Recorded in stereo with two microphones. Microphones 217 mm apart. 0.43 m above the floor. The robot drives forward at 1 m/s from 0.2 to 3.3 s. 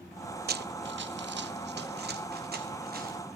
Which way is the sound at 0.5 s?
50° right (ahead or behind).